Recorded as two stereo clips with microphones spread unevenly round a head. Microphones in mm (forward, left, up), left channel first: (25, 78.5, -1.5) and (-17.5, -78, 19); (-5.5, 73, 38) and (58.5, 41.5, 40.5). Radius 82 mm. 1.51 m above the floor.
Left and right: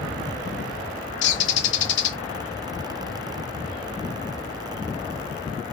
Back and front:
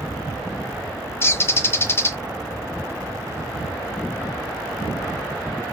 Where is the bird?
95° left, 0.5 m.